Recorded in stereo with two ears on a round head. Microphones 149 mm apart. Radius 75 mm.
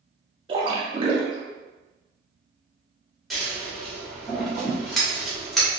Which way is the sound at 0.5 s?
30° right (ahead or behind).